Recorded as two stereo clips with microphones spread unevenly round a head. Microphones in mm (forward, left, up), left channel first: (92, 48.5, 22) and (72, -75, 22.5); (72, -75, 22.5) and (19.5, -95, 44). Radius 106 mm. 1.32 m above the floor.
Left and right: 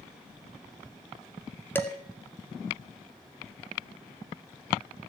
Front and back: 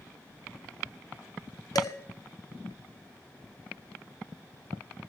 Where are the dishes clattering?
5° left, 2.5 m.